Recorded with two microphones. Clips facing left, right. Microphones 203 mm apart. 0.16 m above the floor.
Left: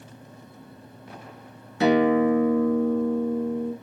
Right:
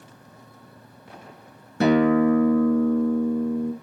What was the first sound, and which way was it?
A guitar, 50° right (ahead or behind).